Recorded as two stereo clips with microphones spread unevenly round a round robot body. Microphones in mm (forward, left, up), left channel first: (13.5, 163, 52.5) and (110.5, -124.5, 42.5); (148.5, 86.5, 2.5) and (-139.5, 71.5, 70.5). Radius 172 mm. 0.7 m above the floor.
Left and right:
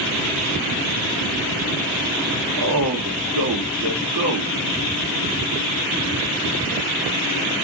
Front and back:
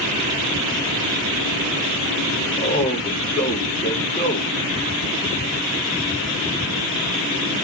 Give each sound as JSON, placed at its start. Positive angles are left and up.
{"t": 2.6, "sound": "a man speaking", "azimuth_deg": -75, "distance_m": 1.8}